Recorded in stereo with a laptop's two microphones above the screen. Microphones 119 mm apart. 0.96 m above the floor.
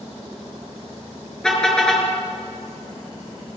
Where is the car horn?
5° left (ahead or behind), 6 m.